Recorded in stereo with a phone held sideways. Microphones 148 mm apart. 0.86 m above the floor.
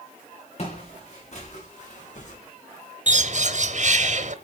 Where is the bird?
55° right (ahead or behind), 0.9 m.